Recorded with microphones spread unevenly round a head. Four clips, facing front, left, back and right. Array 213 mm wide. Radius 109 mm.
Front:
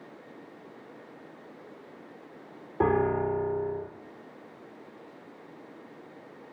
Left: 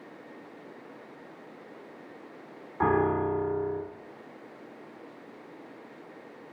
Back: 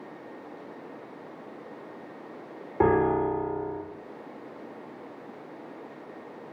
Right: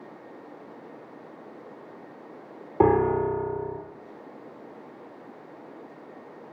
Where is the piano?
105° right, 4 m.